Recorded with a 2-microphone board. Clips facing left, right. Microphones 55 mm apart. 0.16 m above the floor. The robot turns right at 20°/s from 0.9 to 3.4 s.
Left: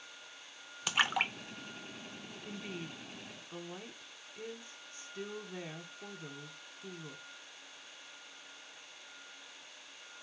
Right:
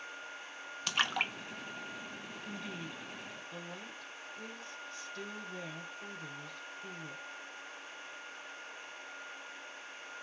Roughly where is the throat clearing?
I don't hear throat clearing.